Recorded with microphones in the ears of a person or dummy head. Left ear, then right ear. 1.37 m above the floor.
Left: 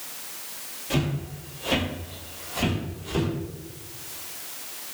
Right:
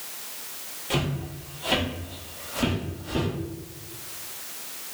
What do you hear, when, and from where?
0.9 s footsteps: 15° right (ahead or behind), 1.8 m; by 3.3 s 15° left (ahead or behind), 2 m